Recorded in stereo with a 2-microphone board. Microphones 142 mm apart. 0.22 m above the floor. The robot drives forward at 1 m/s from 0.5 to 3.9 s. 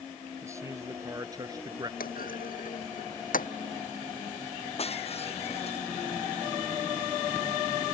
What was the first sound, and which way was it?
A man speaking, 20° right (ahead or behind).